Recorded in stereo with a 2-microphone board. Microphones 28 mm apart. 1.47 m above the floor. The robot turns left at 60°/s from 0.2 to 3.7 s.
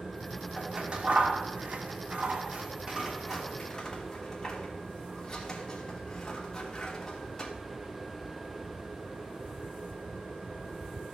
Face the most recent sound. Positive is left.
turn(degrees=20)  # may be behind; listen again after turning